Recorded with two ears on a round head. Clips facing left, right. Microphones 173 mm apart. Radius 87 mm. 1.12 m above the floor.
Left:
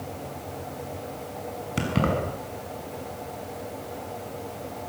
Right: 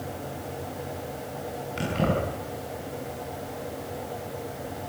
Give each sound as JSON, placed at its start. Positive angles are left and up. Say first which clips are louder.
{"t": 1.8, "sound": "keys jangling", "louder": "left 1 dB", "side_deg": 65, "distance_m": 6.5}